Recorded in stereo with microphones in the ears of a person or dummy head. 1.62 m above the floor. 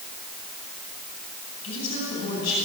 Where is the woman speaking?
75° left (ahead or behind), 9.5 m.